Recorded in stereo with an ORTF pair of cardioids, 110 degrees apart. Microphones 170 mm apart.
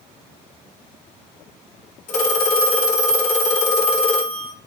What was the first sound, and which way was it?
A phone ringing, 45° left.